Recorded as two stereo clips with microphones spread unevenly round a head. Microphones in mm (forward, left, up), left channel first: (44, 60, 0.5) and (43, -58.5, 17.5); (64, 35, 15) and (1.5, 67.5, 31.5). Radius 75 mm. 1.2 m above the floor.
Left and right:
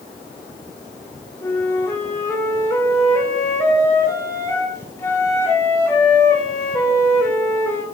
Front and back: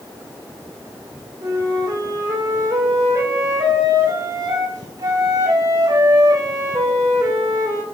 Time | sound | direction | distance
1.4 | a flute | 165° left | 1.2 m